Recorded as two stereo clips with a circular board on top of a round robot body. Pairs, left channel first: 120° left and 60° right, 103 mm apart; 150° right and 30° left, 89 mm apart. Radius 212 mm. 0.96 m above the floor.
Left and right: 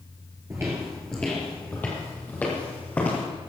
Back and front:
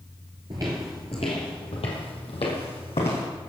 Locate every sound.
0.5 s footsteps: 5° left, 1.0 m; by 3.2 s 165° right, 3.5 m